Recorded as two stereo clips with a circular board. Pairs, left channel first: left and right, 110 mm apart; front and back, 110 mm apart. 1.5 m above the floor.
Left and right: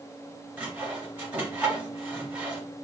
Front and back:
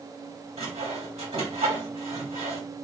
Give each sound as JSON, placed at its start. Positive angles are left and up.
{"t": 0.6, "sound": "sawing", "azimuth_deg": -165, "distance_m": 1.6}